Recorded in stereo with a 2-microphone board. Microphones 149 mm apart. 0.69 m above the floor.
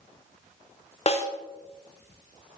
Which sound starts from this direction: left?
A snare drum, at 1.1 s.